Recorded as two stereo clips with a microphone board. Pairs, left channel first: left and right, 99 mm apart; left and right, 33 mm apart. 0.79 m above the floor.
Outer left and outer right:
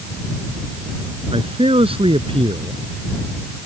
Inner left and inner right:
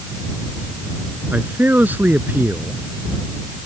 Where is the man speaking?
65° right (ahead or behind).